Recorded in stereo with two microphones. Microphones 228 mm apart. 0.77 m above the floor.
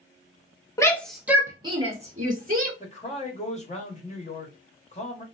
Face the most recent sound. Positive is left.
turn(degrees=30)  # may be behind; listen again after turning